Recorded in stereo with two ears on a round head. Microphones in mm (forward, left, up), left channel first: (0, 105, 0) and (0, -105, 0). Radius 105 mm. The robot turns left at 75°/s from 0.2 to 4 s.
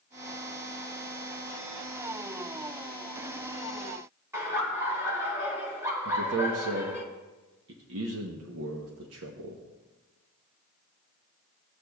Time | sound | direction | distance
4.3 | laughter | 15° right (ahead or behind) | 1.6 m
6.0 | a man speaking | 60° right (ahead or behind) | 0.9 m